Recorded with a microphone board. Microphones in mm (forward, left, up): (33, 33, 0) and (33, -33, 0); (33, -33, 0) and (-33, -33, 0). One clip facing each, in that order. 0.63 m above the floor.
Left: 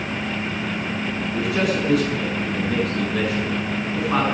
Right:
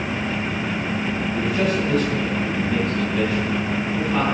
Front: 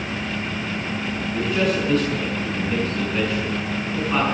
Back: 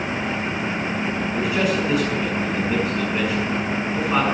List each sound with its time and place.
1.3 s a man speaking: 95° left, 7 m